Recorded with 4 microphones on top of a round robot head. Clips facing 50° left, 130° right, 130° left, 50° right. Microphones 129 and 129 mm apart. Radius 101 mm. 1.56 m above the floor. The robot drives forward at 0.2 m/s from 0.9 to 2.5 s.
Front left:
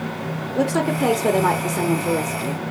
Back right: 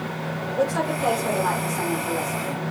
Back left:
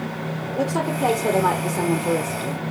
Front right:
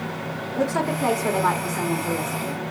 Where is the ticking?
No ticking in this recording.